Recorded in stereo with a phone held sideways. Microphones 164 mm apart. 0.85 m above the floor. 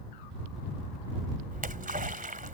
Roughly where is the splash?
Right.